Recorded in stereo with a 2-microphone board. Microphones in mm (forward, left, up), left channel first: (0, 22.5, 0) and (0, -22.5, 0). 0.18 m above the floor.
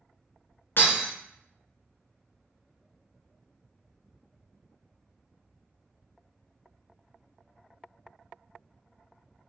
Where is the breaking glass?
55° left (ahead or behind), 0.9 m.